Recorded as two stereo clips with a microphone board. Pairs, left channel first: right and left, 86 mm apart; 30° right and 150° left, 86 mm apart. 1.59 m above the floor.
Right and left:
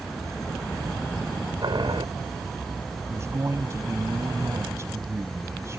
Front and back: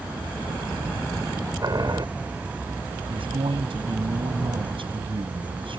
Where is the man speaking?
150° left.